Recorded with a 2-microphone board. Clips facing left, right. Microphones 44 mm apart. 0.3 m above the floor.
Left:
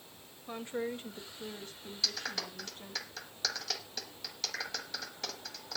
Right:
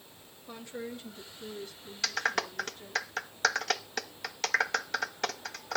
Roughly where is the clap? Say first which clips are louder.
Right 8 dB; right.